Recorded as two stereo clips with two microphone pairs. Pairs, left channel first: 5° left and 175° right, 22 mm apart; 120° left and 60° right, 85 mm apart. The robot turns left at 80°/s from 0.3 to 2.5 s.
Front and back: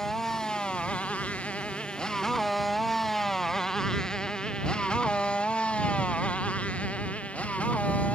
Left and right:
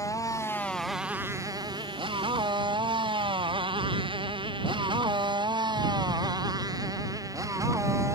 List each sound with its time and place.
0.0 s a motorcycle: 70° left; by 8.2 s 5° right